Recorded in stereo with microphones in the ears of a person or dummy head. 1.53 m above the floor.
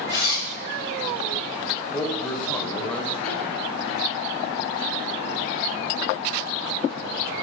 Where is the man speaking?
5° left (ahead or behind), 0.6 m.